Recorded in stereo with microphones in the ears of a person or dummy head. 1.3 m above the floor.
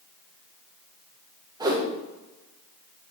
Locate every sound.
1.6 s a whoosh: 15° right (ahead or behind), 1.5 m